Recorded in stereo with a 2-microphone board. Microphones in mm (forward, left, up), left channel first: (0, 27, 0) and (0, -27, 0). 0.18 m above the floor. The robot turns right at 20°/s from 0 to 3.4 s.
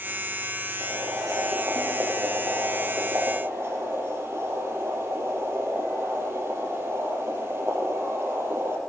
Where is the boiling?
100° right, 5 m; by 8.8 s 45° right, 5 m.